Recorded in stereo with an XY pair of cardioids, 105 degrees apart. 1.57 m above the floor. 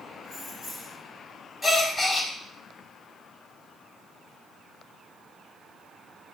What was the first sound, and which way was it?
Keys jangling, 70° left.